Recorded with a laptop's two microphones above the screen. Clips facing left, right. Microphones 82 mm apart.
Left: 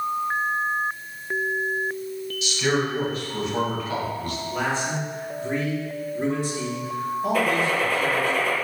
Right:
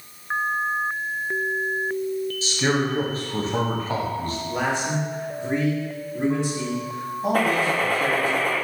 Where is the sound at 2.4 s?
35° right (ahead or behind), 0.7 m.